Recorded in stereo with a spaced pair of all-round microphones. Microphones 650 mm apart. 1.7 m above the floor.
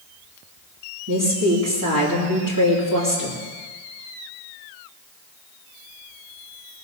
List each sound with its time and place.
1.1 s a woman speaking: 30° right (ahead or behind), 3 m